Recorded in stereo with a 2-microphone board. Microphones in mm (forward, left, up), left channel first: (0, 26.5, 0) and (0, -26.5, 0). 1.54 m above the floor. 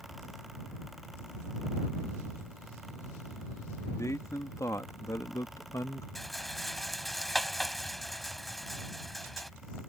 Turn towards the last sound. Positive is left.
turn(degrees=0)  # may be behind; listen again after turning